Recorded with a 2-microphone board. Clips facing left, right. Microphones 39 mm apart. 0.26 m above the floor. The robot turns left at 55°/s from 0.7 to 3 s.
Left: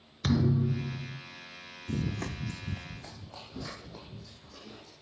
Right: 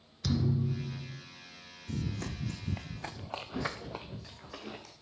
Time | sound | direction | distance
0.2 | a thud | 50° left (ahead or behind) | 0.7 m
1.9 | running footsteps | 60° left (ahead or behind) | 0.8 m